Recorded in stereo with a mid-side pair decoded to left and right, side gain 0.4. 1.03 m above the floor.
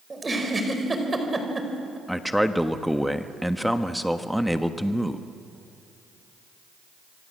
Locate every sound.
0.1 s a giggle: 25° right, 4.5 m
2.1 s a man speaking: straight ahead, 1.3 m